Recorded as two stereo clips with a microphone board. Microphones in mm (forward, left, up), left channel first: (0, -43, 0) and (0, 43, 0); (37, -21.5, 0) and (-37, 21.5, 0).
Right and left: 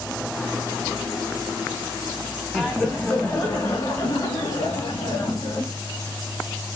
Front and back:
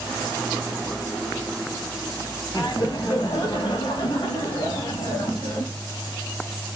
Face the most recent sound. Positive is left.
turn(degrees=-65)